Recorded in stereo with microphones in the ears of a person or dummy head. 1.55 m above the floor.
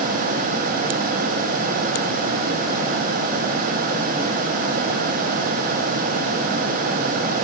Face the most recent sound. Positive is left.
No sound to turn to.